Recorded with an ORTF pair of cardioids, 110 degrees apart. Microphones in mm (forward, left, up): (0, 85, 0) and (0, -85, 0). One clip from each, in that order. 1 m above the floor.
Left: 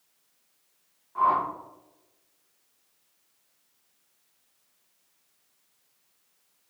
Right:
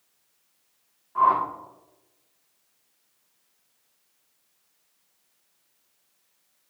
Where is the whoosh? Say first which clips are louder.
Right 3 dB; 15° right, 2.5 m.